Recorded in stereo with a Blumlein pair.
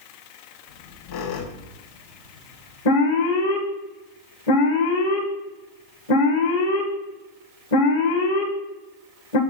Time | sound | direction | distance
0.7 | a squeak | 50° left | 2.5 m
2.9 | an alarm | 65° left | 2.5 m